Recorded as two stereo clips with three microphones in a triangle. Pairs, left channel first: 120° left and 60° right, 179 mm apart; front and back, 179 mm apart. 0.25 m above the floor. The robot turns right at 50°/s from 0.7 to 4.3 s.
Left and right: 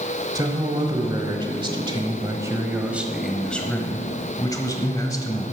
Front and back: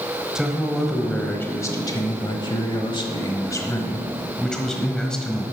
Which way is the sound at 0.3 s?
100° right.